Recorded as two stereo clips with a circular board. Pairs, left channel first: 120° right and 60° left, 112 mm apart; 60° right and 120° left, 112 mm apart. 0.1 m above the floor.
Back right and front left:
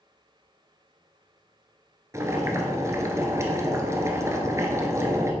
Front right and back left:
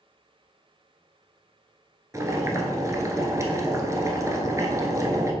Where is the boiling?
95° left, 1.3 m.